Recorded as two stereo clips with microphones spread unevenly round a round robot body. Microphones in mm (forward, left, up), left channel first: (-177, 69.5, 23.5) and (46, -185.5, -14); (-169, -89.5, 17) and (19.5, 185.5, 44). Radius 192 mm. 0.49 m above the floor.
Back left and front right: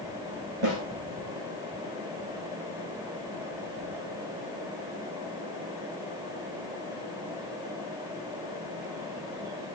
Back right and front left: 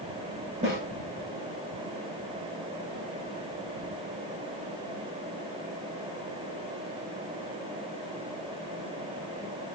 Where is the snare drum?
20° right, 8.5 m.